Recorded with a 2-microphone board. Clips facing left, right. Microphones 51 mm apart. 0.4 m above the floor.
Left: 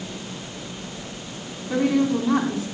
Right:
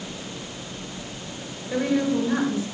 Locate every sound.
1.7 s a woman speaking: 70° left (ahead or behind), 3.5 m